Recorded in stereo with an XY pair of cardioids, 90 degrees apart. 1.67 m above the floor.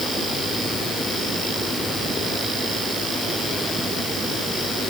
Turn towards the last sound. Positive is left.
No sound to turn to.